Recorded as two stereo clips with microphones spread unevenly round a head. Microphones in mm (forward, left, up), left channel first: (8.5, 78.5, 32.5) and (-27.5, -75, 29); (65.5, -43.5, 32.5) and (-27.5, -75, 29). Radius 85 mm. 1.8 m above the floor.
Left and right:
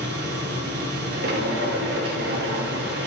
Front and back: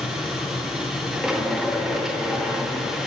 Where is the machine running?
75° right, 1.9 m.